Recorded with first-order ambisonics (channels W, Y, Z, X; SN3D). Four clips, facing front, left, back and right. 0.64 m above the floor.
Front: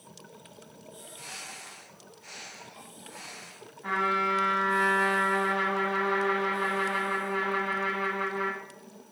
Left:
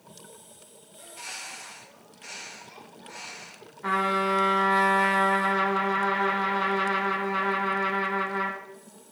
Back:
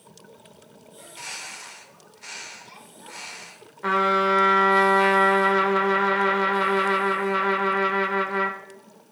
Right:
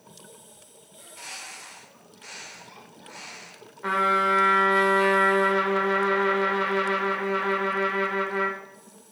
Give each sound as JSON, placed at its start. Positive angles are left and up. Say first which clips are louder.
{"t": 1.0, "sound": "a bird", "louder": "left 1 dB, back 6 dB", "azimuth_deg": -175, "distance_m": 1.6}
{"t": 3.8, "sound": "a trumpet", "louder": "right 3 dB, back 6 dB", "azimuth_deg": -165, "distance_m": 1.2}